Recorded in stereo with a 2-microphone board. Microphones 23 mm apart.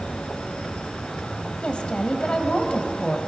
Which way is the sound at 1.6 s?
50° left (ahead or behind).